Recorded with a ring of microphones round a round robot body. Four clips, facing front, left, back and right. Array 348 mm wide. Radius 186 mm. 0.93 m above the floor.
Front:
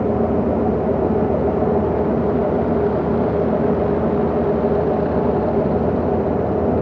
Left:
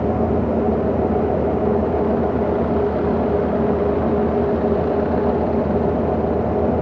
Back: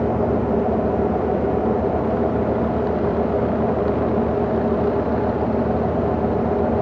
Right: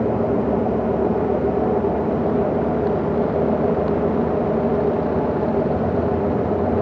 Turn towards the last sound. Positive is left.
No sound to turn to.